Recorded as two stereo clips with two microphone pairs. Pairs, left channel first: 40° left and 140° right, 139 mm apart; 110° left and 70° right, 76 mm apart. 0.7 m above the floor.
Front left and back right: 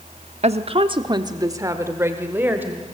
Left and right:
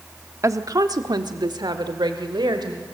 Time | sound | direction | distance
0.4 | a woman speaking | 110° right | 1.1 m